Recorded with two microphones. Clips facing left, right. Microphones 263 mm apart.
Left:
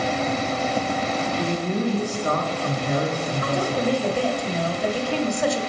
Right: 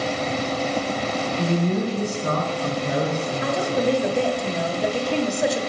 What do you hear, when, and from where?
1.4 s a man speaking: 40° right (ahead or behind), 3 m
3.4 s a woman speaking: 20° right (ahead or behind), 1.0 m